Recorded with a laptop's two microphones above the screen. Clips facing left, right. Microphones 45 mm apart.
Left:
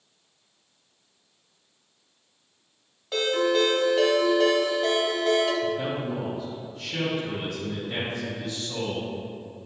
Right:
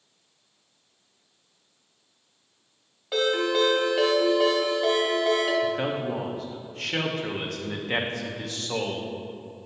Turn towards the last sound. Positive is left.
turn(degrees=-65)  # may be behind; listen again after turning